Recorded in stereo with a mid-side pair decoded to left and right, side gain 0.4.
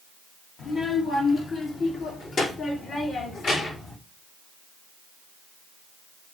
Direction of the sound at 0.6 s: 70° left.